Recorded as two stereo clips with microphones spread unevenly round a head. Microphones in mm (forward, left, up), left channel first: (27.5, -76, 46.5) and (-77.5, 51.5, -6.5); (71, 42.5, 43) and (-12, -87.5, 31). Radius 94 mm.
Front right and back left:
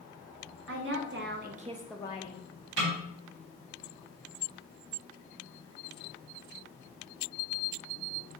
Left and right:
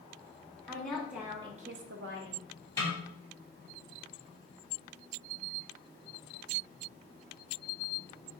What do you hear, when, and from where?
0.7 s a woman speaking: 140° left, 1.7 m; by 2.5 s 85° right, 1.1 m
2.8 s a snare drum: 130° left, 1.9 m